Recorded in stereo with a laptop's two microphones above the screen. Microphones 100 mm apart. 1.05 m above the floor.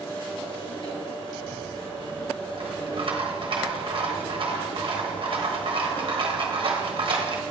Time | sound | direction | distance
0.0 | a machine running | 50° left (ahead or behind) | 2.5 m
1.4 | a rattle | 55° right (ahead or behind) | 1.3 m